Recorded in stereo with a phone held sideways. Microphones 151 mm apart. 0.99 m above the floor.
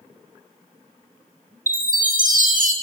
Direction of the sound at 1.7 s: 65° right (ahead or behind).